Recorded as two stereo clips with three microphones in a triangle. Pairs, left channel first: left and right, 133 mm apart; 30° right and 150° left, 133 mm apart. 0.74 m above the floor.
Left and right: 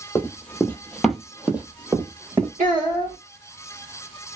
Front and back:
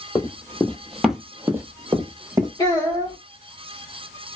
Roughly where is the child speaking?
Right.